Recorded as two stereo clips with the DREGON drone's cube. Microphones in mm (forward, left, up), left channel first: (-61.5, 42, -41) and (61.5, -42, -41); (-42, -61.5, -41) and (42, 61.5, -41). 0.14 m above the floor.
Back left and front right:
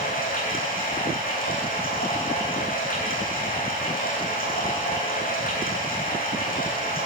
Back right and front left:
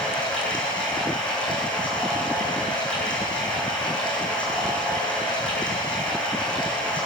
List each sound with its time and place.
0.0 s running water: 155° left, 5 m